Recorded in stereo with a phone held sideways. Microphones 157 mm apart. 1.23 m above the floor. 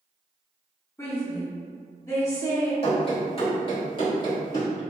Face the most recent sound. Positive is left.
turn(degrees=25)  # may be behind; listen again after turning